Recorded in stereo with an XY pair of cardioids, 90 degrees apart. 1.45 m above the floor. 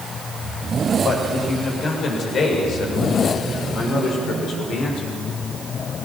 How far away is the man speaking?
About 7 m.